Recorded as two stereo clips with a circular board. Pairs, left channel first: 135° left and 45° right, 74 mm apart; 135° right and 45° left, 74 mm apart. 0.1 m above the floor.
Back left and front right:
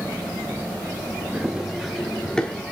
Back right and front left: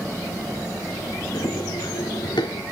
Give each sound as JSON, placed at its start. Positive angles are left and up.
{"t": 1.3, "sound": "running footsteps", "azimuth_deg": -120, "distance_m": 2.0}